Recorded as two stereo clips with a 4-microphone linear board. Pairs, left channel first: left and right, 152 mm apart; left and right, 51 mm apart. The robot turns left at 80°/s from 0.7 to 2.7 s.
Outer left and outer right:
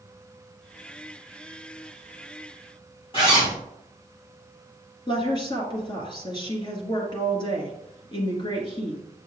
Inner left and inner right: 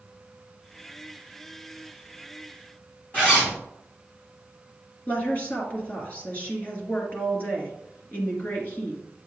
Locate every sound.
3.1 s a zipper: 35° left (ahead or behind), 3.5 m
5.1 s a woman speaking: 35° left (ahead or behind), 1.8 m